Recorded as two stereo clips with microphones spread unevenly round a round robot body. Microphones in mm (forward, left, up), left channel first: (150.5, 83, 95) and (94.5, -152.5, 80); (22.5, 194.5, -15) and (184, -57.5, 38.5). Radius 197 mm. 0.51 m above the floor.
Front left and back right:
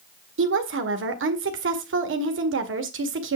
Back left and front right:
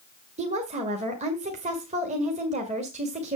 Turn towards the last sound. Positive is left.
turn(degrees=-135)